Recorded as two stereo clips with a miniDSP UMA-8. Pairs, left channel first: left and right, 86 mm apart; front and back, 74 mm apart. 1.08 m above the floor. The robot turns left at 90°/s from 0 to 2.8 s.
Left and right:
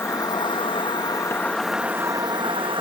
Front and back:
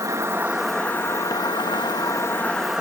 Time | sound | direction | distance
0.0 | an insect | 150° left | ?